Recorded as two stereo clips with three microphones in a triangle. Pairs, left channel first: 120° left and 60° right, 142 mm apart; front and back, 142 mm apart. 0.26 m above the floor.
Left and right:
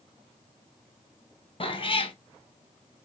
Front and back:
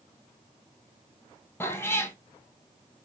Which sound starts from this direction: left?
A cat meowing, at 1.6 s.